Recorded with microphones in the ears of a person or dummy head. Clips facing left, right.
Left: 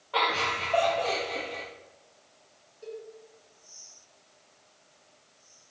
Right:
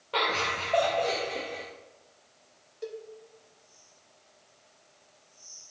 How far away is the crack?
No crack in this recording.